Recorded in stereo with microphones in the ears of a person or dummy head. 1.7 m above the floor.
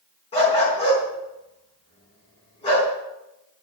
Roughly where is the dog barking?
Left.